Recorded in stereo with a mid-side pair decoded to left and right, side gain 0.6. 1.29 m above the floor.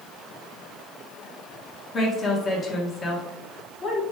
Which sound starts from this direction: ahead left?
A woman speaking, at 1.9 s.